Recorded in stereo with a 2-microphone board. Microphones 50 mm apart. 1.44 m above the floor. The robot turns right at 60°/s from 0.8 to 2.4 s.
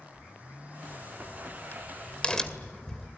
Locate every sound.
0.9 s a crack: 60° left (ahead or behind), 2 m; by 3.1 s 15° left (ahead or behind), 2 m